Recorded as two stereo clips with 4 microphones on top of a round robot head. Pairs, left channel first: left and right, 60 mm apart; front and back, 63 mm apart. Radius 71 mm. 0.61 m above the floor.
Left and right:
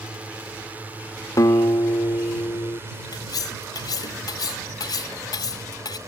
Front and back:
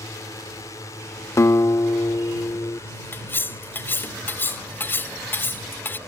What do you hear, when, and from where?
0.0 s a drone: 25° right; by 6.1 s 50° right
1.4 s a guitar: 45° left
3.1 s cutlery clinking: 55° left